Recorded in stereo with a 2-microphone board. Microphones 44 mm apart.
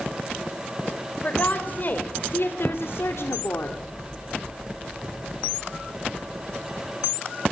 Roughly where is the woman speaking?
Left.